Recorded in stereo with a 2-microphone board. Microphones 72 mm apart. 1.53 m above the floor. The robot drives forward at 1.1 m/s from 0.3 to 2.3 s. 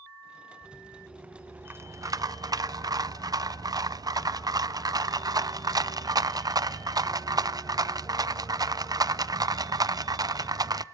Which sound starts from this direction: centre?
A rattle, at 0.6 s.